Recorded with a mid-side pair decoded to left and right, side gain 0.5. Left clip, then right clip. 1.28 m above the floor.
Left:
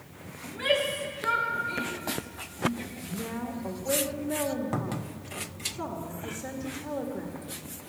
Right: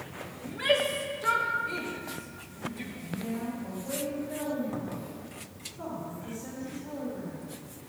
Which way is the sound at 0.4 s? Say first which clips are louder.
Even; 10° right.